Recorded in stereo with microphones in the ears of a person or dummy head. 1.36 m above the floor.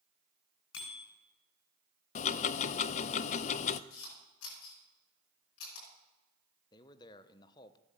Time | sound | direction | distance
0.7 | a bicycle bell | 85° left | 10 m
2.1 | ticking | 45° left (ahead or behind) | 0.6 m
3.9 | a camera shutter | 85° left | 9 m
6.7 | a man speaking | 25° left (ahead or behind) | 1.0 m